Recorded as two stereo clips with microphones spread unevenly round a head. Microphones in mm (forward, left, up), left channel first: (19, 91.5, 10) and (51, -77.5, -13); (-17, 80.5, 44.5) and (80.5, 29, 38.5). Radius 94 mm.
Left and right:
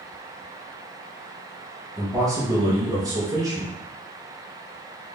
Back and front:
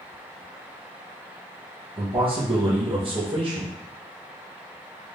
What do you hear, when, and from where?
2.0 s a man speaking: 20° right, 1.0 m